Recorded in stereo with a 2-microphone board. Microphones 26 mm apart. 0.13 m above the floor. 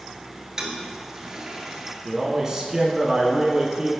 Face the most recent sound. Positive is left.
turn(degrees=-20)  # may be behind; listen again after turning